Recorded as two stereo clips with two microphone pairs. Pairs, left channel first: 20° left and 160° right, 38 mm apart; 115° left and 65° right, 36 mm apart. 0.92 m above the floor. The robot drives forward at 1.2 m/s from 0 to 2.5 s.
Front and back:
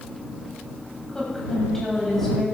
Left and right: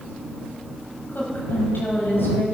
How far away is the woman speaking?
About 5.5 m.